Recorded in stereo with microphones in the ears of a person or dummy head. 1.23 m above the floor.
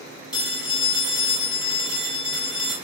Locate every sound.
0.3 s a phone ringing: 30° left (ahead or behind), 5 m